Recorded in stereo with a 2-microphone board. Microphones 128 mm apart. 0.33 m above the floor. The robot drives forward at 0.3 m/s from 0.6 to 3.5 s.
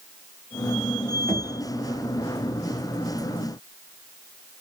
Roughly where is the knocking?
Centre.